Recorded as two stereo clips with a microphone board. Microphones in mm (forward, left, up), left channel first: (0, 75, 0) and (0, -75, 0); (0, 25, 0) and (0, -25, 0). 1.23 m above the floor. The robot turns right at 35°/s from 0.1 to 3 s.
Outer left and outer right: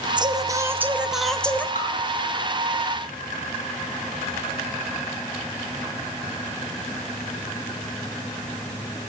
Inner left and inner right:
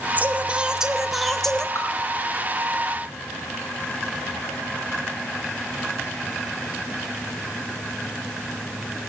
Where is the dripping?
65° left (ahead or behind), 4.5 m; by 1.9 s 70° left (ahead or behind), 4.5 m.